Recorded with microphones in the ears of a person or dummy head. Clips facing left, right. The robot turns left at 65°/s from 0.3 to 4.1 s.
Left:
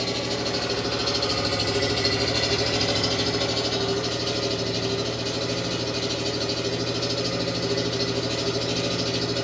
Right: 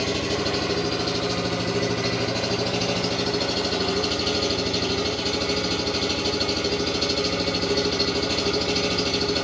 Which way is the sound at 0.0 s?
170° right.